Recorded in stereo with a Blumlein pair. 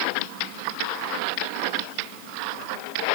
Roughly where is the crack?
I don't hear a crack.